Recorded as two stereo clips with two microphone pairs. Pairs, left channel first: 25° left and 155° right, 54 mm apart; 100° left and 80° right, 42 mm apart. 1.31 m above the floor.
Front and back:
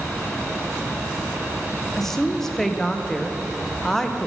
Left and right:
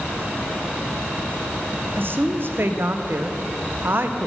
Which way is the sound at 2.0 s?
60° right.